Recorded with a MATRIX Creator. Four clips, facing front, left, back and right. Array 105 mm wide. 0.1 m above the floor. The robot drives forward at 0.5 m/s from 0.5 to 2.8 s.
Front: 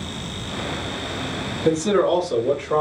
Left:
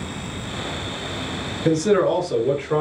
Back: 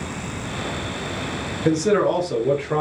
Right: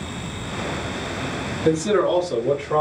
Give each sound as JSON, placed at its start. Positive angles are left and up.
{"t": 1.6, "sound": "a man speaking", "azimuth_deg": 140, "distance_m": 1.2}